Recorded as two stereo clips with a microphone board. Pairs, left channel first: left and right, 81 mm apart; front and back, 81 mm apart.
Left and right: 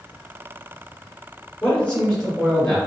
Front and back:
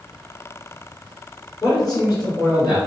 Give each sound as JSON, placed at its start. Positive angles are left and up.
{"t": 1.6, "sound": "a man speaking", "azimuth_deg": 20, "distance_m": 1.9}